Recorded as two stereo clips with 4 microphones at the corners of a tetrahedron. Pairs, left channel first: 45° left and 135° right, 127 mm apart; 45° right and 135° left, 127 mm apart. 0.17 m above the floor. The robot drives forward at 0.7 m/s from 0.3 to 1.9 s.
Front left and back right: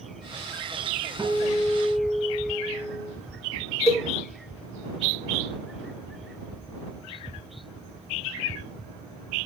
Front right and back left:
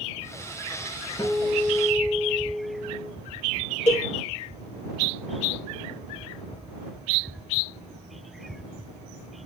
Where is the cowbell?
35° right, 3.5 m.